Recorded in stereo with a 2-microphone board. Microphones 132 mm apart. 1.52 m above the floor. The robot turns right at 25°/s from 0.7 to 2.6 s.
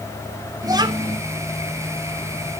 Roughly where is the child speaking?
Right.